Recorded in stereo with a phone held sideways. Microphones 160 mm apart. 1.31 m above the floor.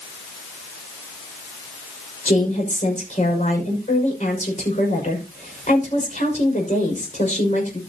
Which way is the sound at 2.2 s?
50° left (ahead or behind).